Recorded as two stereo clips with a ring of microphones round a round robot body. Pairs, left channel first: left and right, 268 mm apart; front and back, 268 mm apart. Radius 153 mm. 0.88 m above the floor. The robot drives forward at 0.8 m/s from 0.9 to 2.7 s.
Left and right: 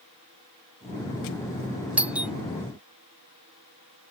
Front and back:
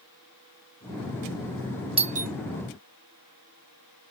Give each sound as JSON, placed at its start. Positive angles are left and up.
{"t": 2.0, "sound": "a doorbell", "azimuth_deg": -165}